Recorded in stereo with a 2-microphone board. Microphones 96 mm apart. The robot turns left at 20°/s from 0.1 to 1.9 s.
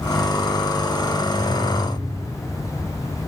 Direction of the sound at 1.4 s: 20° left (ahead or behind).